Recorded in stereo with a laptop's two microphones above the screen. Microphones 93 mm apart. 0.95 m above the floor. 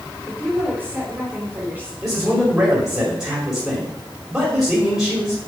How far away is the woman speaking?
About 3.5 m.